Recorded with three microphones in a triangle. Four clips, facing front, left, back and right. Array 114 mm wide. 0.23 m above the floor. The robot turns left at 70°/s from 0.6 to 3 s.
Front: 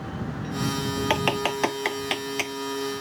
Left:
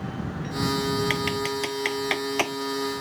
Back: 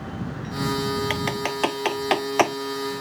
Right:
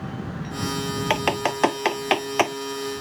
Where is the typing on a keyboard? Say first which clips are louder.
Right 4 dB, front 2 dB; 60° right; by 3.0 s 170° left.